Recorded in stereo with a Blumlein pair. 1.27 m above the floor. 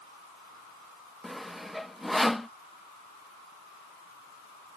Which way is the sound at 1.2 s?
Straight ahead.